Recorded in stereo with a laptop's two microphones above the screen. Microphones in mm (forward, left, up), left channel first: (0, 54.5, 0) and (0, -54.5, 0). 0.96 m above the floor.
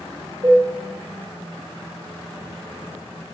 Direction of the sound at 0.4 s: 55° right (ahead or behind).